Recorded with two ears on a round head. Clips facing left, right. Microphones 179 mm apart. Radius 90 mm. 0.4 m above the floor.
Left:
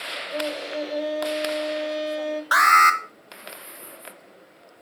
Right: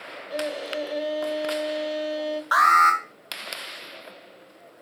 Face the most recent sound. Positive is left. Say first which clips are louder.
# even
turn(degrees=30)  # may be behind; listen again after turning